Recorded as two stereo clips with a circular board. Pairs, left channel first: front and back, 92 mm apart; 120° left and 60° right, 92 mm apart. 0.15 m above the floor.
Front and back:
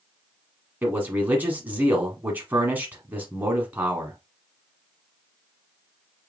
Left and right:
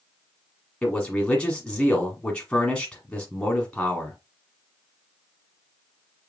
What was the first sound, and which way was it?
A man speaking, 175° left.